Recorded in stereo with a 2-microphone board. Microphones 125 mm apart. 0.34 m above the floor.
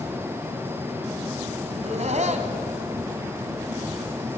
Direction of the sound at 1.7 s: 60° right (ahead or behind).